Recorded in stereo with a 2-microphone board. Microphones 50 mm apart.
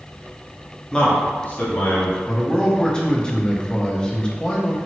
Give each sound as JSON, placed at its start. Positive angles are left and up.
{"t": 0.9, "sound": "a man speaking", "side_deg": 15, "distance_m": 0.7}
{"t": 2.3, "sound": "a man speaking", "side_deg": 15, "distance_m": 0.6}